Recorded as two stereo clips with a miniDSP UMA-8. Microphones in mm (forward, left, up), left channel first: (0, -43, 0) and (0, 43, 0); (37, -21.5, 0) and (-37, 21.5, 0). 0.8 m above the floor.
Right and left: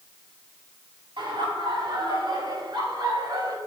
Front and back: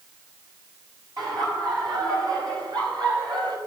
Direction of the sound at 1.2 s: 110° left.